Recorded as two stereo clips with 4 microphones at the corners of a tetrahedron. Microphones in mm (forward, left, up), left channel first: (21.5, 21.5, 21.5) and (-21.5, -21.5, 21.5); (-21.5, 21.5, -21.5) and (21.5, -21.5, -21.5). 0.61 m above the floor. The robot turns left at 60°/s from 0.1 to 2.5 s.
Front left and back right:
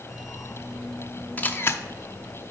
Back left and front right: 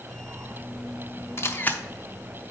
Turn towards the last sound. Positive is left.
turn(degrees=35)